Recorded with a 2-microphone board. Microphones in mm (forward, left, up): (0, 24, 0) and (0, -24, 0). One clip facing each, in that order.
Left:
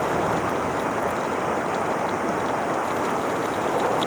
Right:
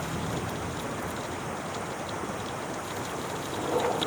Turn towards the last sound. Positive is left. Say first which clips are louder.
# left 10 dB
turn(degrees=80)